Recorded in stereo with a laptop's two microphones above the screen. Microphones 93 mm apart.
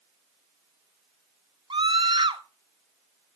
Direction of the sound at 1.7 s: 65° right (ahead or behind).